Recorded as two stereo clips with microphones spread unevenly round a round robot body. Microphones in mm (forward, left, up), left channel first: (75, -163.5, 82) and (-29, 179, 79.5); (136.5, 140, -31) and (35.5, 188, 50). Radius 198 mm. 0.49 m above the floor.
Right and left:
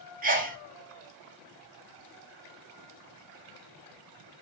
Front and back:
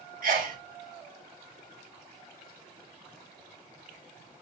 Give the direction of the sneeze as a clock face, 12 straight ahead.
7 o'clock.